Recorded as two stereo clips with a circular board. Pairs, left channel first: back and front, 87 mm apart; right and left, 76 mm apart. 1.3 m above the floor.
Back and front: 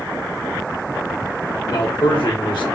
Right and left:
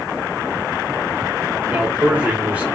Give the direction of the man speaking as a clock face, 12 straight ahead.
7 o'clock.